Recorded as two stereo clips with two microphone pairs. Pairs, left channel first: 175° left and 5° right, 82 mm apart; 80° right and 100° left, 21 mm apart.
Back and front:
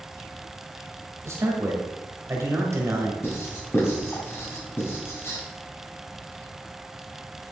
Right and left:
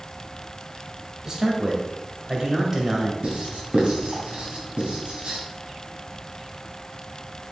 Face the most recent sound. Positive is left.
turn(degrees=115)